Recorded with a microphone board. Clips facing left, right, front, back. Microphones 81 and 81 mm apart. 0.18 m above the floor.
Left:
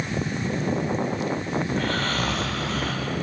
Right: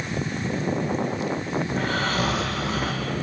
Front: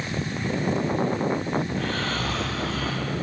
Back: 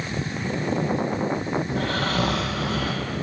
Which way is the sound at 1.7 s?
175° right.